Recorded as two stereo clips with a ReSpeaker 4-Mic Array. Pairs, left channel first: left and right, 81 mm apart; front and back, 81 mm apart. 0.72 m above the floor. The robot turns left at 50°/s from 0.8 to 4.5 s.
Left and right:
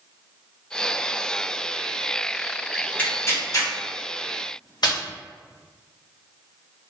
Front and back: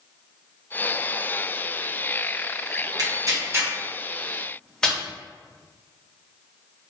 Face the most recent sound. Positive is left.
turn(degrees=80)